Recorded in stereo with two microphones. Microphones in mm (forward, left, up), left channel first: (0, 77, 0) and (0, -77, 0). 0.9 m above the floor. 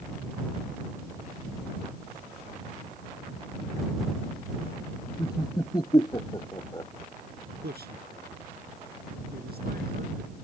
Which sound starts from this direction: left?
Laughter, at 5.2 s.